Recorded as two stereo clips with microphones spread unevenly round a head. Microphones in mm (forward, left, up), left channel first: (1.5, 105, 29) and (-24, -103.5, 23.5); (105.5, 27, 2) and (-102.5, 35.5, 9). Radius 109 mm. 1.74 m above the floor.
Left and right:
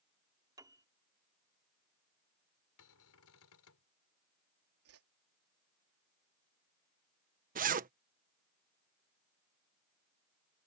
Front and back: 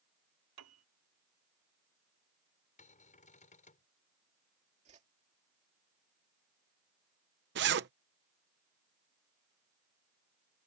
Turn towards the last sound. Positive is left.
turn(degrees=-145)